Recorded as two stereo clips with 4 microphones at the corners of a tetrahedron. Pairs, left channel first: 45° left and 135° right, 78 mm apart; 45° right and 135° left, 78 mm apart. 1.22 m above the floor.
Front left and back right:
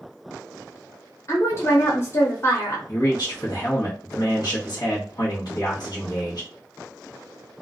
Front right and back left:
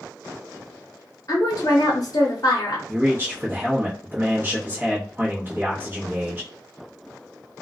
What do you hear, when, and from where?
1.3 s a woman speaking: 5° right, 0.8 m
2.9 s a man speaking: 75° left, 0.9 m